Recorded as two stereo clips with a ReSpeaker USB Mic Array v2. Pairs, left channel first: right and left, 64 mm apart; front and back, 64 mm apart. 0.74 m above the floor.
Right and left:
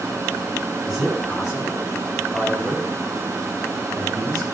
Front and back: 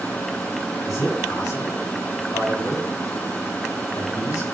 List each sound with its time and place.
0.8 s a man speaking: 5° left, 4.5 m